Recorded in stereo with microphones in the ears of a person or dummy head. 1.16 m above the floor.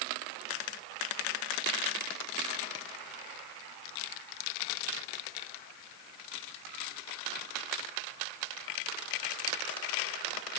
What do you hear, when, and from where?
Only background noise.